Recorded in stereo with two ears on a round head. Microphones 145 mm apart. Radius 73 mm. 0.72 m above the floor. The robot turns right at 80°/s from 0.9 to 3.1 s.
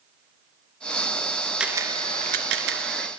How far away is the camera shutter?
About 2.0 m.